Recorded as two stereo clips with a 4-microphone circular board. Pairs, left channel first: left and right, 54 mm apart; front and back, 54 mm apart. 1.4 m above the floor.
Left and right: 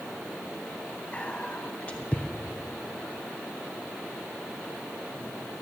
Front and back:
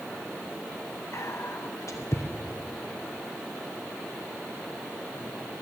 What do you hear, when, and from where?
1.1 s whispering: 25° left, 1.1 m